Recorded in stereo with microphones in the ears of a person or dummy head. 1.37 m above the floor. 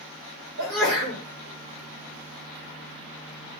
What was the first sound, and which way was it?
A sneeze, 85° right.